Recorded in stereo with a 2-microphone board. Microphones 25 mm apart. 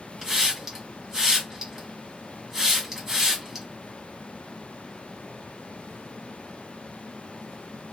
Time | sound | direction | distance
0.2 | a hiss | 15° right (ahead or behind) | 1.4 m